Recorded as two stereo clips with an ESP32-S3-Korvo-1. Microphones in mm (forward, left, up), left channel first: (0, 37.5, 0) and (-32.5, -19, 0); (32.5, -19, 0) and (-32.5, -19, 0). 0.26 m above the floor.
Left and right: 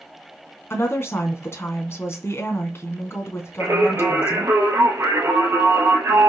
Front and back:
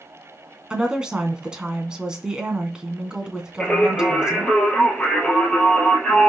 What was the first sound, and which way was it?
A woman speaking, 105° left.